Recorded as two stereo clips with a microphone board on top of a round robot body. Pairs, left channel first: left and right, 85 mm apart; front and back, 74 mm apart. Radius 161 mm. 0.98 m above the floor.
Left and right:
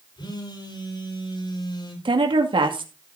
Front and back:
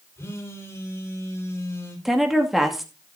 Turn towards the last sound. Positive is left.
turn(degrees=-90)